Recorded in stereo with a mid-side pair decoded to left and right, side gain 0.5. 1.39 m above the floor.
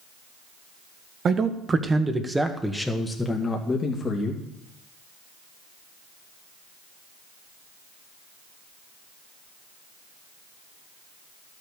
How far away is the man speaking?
About 1.9 m.